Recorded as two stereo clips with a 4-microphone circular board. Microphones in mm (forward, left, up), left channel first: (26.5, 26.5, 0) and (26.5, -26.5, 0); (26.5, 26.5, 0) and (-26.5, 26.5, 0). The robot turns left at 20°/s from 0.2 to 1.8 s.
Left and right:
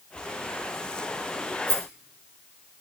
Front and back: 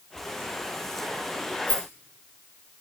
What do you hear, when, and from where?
1.7 s a rattle: 65° right, 3 m